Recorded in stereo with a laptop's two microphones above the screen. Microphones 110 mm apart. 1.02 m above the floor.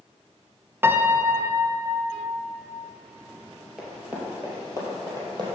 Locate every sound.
0.8 s a piano: 20° right (ahead or behind), 0.5 m
3.8 s running footsteps: centre (ahead or behind), 1.4 m; by 5.5 s 40° right (ahead or behind), 2 m